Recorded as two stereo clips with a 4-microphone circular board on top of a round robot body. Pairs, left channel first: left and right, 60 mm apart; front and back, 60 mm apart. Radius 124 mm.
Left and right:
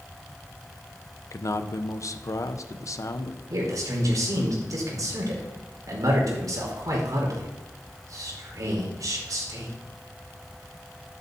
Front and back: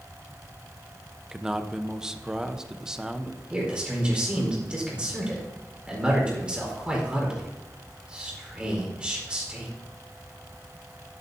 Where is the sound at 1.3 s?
100° left, 1.0 m.